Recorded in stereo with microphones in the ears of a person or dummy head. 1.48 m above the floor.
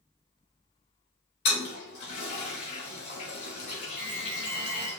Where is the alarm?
5° right (ahead or behind), 2.0 m.